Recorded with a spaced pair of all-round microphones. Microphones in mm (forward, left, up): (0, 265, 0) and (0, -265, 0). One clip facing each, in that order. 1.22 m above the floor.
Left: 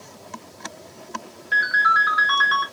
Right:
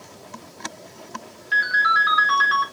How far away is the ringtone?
About 0.7 m.